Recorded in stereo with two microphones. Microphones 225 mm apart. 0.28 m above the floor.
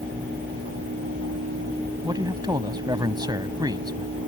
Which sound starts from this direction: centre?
A man speaking, at 2.0 s.